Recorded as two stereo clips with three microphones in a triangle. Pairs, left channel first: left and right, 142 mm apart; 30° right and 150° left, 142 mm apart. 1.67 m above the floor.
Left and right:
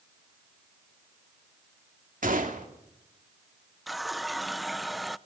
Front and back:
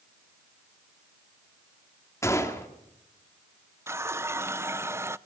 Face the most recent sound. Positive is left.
turn(degrees=180)